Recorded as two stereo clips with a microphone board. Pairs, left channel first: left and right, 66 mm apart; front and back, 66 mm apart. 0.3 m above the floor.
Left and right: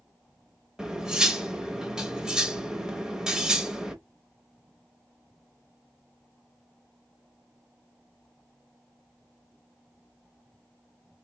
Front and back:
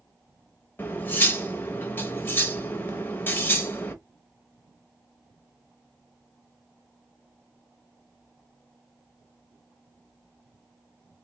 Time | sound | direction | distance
0.8 | cutlery clinking | 20° right | 0.6 m